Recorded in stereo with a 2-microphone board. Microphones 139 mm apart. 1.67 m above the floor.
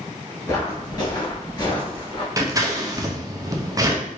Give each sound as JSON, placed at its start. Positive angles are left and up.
{"t": 0.5, "sound": "footsteps", "side_deg": 25, "distance_m": 1.7}
{"t": 2.4, "sound": "scissors", "side_deg": -25, "distance_m": 0.5}